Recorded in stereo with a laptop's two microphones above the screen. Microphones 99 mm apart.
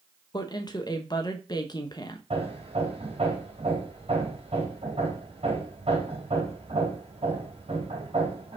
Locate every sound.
0.3 s a woman speaking: 40° left (ahead or behind), 1.0 m
2.3 s hammering: 75° right (ahead or behind), 2.5 m